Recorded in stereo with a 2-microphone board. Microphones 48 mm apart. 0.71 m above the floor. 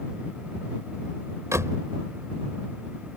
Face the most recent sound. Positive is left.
turn(degrees=-80)